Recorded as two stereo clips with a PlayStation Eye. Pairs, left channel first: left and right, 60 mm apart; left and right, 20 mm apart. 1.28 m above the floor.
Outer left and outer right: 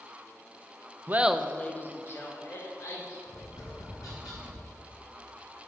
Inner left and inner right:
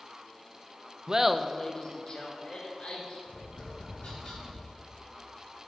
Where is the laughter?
35° right (ahead or behind), 0.5 m; by 3.2 s 55° left (ahead or behind), 2 m.